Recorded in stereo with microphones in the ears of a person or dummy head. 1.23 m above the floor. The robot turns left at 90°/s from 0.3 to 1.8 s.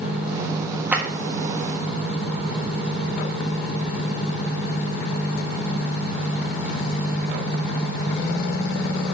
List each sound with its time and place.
0.9 s a clap: 10° right (ahead or behind), 1.4 m; by 1.0 s 5° left (ahead or behind), 1.4 m